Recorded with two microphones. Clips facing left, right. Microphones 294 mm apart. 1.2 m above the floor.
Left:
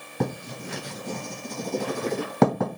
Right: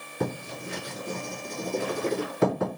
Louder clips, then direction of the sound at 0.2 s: Left 2 dB; 80° left.